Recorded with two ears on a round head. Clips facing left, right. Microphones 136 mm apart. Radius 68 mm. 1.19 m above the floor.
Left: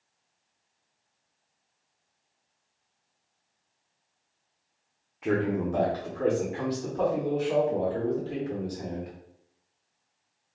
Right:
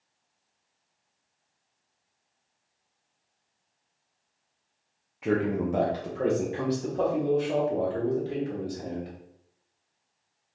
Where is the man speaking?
5° right (ahead or behind), 0.6 m; by 9.1 s 35° right (ahead or behind), 2.5 m.